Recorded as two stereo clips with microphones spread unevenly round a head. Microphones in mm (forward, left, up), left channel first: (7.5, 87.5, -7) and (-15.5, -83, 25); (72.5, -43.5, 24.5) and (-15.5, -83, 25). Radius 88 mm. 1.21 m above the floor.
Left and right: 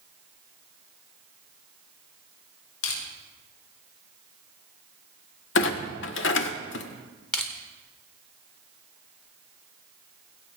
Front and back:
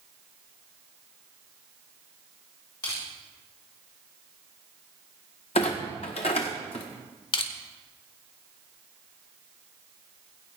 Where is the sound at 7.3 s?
Straight ahead, 1.6 m.